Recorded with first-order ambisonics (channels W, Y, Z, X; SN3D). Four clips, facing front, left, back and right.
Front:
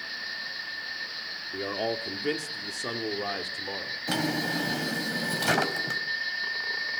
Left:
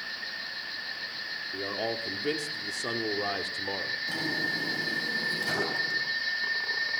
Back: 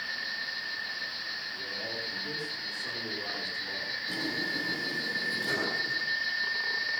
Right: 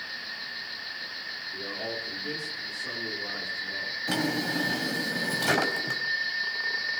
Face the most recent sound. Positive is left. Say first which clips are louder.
# right 4 dB, front 6 dB
turn(degrees=-35)